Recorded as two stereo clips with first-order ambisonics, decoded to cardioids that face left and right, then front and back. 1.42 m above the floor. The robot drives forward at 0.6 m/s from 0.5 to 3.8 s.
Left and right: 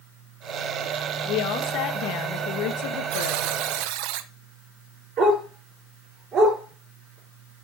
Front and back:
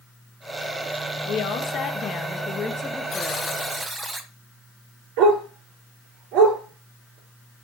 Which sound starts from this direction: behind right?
A dog barking, at 5.2 s.